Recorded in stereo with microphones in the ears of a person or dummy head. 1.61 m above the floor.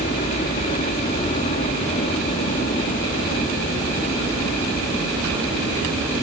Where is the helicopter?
40° left (ahead or behind); by 6.2 s 25° left (ahead or behind).